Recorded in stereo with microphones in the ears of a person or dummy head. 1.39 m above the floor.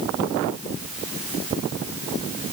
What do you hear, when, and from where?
Only background noise.